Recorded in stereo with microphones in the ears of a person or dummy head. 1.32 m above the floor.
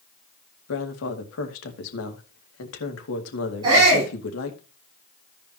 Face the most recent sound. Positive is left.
turn(degrees=-30)  # may be behind; listen again after turning